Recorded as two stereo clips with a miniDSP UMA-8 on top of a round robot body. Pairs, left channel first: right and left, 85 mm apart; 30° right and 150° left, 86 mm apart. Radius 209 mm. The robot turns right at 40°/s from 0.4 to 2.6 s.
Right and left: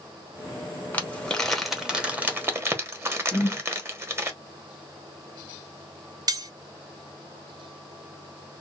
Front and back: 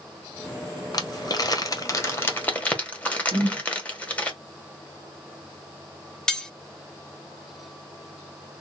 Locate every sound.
0.9 s crumpling: 30° right, 1.4 m; by 4.3 s 40° left, 1.4 m
3.3 s a whoosh: 175° left, 1.9 m
6.3 s cutlery clinking: 50° left, 0.8 m